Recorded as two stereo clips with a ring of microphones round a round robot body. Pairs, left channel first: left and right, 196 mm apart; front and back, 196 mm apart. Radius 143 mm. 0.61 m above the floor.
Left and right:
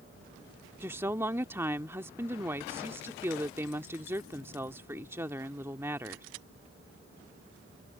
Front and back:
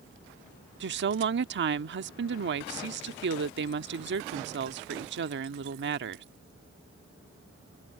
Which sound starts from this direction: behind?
A woman speaking, at 0.8 s.